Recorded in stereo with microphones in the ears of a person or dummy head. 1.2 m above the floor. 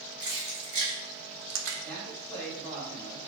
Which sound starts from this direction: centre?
A man speaking, at 1.8 s.